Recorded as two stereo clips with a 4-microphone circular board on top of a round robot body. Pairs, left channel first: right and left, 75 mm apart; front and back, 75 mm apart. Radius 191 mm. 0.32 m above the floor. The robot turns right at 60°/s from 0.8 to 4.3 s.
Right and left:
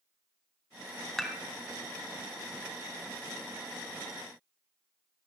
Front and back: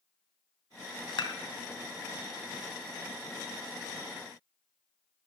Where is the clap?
I don't hear a clap.